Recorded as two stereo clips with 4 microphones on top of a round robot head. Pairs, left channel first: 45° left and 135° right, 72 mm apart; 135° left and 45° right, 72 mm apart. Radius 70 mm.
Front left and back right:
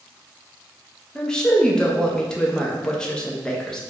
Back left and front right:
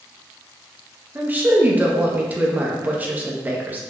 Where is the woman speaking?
20° right, 0.7 m.